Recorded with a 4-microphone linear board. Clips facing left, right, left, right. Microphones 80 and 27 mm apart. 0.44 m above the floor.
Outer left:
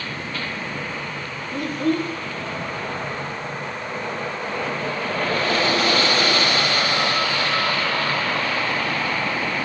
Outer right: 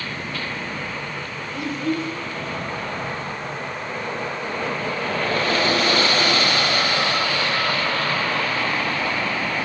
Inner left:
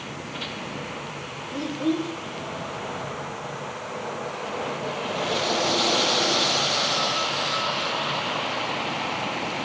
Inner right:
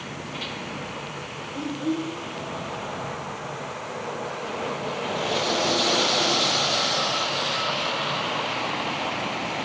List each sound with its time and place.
1.5 s a child speaking: 50° left (ahead or behind), 1.3 m